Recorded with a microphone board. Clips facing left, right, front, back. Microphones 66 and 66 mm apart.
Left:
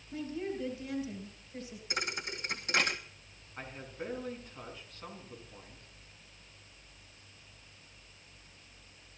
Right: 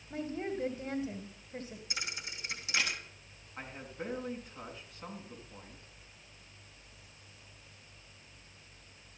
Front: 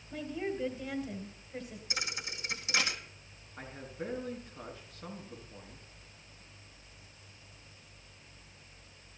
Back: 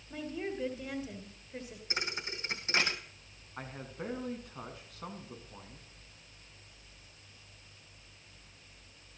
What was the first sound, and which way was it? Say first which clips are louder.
A woman speaking: even, front 2 dB; 95° right.